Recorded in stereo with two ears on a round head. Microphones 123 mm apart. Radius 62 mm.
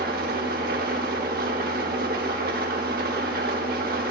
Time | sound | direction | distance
0.0 | an engine running | 70° right (ahead or behind) | 1.3 m